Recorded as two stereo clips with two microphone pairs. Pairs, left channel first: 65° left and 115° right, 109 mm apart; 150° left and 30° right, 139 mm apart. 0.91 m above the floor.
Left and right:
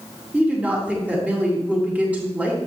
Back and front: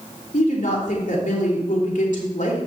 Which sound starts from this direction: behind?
A woman speaking, at 0.3 s.